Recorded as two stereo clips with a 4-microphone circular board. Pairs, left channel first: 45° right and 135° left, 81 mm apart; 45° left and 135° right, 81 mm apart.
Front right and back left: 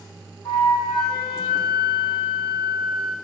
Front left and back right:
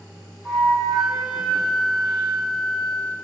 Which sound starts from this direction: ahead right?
A flute, at 0.5 s.